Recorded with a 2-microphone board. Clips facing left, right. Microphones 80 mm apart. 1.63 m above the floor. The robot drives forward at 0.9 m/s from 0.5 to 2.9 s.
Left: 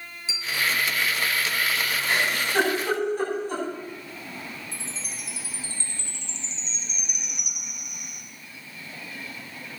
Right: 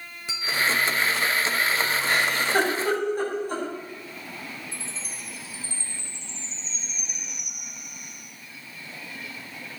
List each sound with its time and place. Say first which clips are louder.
0.3 s a bell: right 2 dB; 60° right (ahead or behind), 3.5 m
2.1 s a giggle: right 1 dB; 50° right (ahead or behind), 10 m; by 3.6 s 45° right (ahead or behind), 10.5 m
4.7 s a chime: even; 75° left (ahead or behind), 2.5 m